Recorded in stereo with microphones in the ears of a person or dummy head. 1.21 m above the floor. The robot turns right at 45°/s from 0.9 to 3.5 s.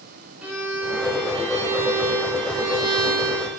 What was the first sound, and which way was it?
A violin, 175° right.